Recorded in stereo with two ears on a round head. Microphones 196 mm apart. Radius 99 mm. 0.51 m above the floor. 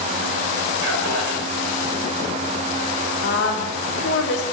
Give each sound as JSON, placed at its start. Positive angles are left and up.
{"t": 0.8, "sound": "a man speaking", "side_deg": -60, "distance_m": 2.5}
{"t": 3.2, "sound": "a woman speaking", "side_deg": 55, "distance_m": 1.5}